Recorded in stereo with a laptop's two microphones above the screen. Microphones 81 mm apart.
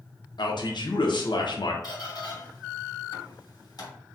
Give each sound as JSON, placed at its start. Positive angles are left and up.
{"t": 0.4, "sound": "a man speaking", "side_deg": 65, "distance_m": 0.7}
{"t": 1.8, "sound": "a squeak", "side_deg": 55, "distance_m": 1.5}